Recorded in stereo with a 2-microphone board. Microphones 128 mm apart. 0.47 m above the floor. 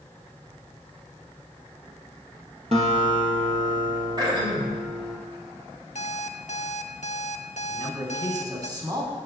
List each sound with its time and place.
2.7 s a guitar: 55° right (ahead or behind), 2.5 m
4.2 s throat clearing: 35° right (ahead or behind), 3 m
6.0 s an alarm clock: 65° left (ahead or behind), 0.7 m
7.7 s a man speaking: 30° right (ahead or behind), 3.5 m